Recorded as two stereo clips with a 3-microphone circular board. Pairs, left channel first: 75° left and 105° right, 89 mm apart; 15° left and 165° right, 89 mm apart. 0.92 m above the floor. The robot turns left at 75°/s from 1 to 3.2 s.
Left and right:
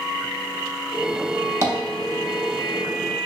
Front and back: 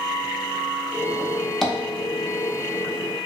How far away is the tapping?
About 0.6 m.